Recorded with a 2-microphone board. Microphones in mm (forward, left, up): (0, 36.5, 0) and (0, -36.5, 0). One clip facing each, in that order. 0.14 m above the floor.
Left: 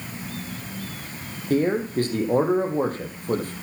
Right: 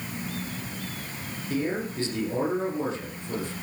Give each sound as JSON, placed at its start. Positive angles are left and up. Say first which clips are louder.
{"t": 1.5, "sound": "a man speaking", "louder": "left 7 dB", "side_deg": 50, "distance_m": 5.0}